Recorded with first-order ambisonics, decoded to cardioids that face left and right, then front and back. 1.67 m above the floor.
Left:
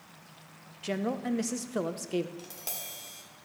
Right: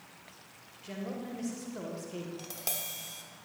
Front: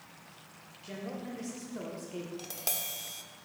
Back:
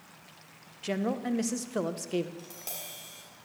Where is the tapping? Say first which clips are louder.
Right 2 dB, front 5 dB; 25° right, 1.4 m.